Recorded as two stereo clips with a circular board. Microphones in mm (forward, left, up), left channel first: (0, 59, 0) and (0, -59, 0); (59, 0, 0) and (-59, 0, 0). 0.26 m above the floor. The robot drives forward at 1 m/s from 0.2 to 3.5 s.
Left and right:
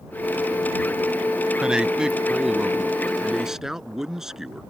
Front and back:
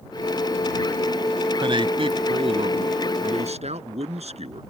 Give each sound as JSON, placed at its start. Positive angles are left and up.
{"t": 1.6, "sound": "a man speaking", "azimuth_deg": -170}